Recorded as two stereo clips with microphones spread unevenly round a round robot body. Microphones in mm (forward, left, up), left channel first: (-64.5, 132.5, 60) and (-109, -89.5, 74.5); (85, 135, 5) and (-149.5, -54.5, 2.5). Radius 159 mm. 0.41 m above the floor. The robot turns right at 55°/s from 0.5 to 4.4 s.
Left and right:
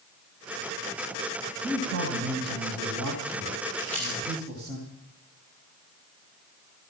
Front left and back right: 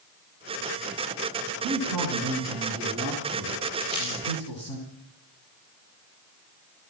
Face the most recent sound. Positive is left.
turn(degrees=70)